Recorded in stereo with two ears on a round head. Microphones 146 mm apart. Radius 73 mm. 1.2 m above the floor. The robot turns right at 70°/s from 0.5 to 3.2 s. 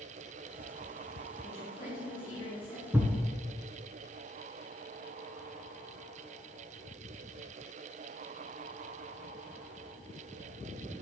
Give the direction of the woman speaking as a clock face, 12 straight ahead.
12 o'clock.